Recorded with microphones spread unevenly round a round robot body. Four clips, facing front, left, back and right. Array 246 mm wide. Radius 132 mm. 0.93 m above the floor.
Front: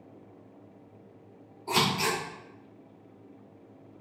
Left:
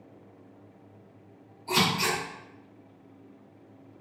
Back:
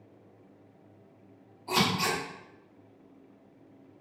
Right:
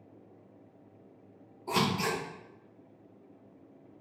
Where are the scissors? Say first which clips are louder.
Left 2 dB, front 1 dB; 50° right, 1.7 m.